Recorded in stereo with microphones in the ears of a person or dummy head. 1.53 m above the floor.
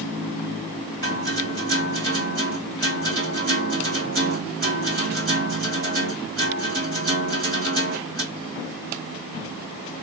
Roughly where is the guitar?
Right.